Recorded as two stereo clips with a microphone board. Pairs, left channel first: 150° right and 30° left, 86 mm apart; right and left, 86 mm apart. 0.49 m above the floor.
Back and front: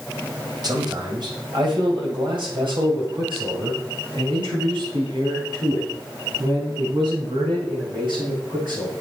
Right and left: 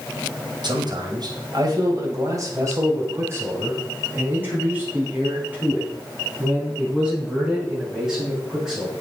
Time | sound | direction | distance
0.6 | a man speaking | 65° left | 2.5 m